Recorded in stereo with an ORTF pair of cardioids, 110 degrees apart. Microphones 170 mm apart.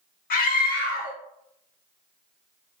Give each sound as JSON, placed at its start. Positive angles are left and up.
{"t": 0.3, "sound": "a scream", "azimuth_deg": 55, "distance_m": 0.9}